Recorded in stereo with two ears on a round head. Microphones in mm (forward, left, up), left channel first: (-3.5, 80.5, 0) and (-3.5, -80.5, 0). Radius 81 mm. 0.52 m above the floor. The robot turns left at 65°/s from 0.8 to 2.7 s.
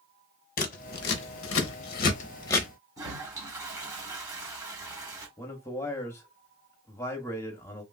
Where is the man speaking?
15° left (ahead or behind), 0.8 m.